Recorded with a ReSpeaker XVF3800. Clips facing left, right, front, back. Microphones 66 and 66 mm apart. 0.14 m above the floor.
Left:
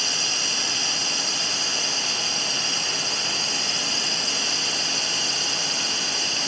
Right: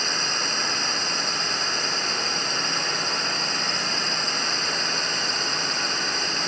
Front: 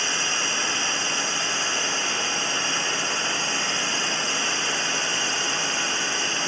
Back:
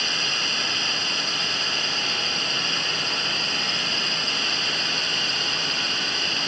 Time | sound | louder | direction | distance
0.0 | a drone | right 3 dB, front 1 dB | 65° right | ?